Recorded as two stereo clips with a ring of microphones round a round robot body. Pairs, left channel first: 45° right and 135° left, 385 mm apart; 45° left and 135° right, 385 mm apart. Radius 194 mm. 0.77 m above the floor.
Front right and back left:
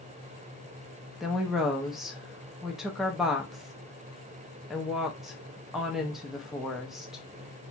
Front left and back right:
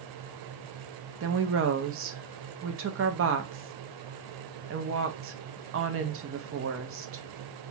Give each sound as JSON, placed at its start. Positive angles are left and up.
{"t": 1.2, "sound": "a woman speaking", "azimuth_deg": -135, "distance_m": 0.5}